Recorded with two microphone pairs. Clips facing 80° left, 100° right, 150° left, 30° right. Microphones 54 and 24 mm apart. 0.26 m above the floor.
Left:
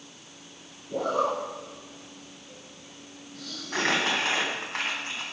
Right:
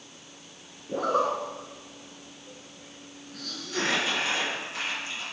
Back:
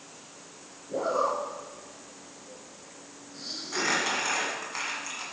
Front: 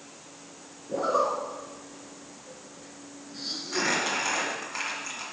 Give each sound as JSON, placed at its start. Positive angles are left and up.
{"t": 0.9, "sound": "a zipper", "azimuth_deg": -90, "distance_m": 1.6}
{"t": 3.7, "sound": "crumpling", "azimuth_deg": 60, "distance_m": 1.7}